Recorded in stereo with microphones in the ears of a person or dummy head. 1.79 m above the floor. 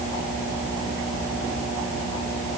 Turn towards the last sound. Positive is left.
No sound to turn to.